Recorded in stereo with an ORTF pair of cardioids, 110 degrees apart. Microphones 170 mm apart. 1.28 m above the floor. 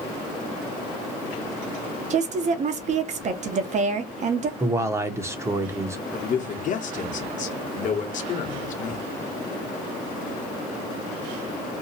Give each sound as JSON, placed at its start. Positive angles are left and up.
{"t": 2.1, "sound": "a woman speaking", "azimuth_deg": -45, "distance_m": 1.0}
{"t": 4.6, "sound": "a man speaking", "azimuth_deg": -15, "distance_m": 0.9}
{"t": 6.1, "sound": "a man speaking", "azimuth_deg": 50, "distance_m": 1.1}